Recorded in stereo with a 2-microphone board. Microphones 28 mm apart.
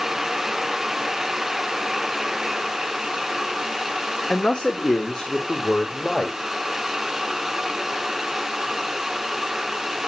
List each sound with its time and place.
4.3 s a man speaking: 45° left (ahead or behind), 1.6 m; by 6.4 s 35° left (ahead or behind), 2.5 m